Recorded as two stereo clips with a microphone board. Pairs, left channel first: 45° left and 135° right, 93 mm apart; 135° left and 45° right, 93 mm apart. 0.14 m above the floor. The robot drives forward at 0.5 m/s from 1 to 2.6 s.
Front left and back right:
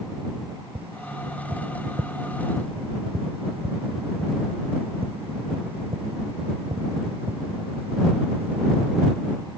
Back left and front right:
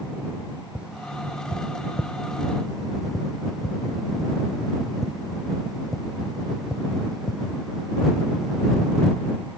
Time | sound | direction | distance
0.8 | tapping | 125° right | ?